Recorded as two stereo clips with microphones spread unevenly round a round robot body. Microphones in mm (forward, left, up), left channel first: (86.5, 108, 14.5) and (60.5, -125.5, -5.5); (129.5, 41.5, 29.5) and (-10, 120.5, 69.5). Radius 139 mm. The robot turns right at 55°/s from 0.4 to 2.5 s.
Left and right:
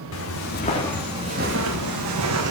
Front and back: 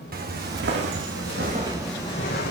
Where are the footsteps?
125° left, 2.5 m; by 2.5 s 70° right, 1.6 m.